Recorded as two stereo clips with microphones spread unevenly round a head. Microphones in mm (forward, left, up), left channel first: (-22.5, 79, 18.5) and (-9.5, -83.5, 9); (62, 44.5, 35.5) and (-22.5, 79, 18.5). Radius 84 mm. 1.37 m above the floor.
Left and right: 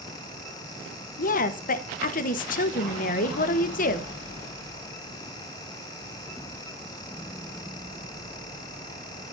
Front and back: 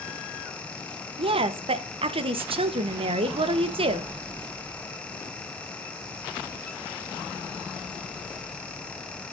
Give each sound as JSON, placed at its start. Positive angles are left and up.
{"t": 1.2, "sound": "a woman speaking", "azimuth_deg": 135, "distance_m": 0.9}